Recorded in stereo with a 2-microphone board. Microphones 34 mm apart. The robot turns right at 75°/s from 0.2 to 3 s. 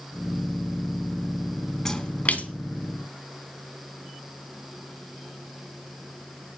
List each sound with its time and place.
1.9 s a splash: 15° left (ahead or behind), 1.0 m; by 2.5 s 50° left (ahead or behind), 1.0 m